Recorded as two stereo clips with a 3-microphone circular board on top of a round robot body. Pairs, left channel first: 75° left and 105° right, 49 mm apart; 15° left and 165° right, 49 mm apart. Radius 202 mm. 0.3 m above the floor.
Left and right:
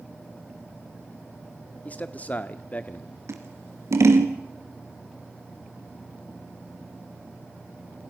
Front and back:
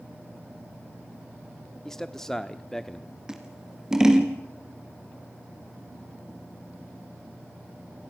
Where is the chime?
No chime in this recording.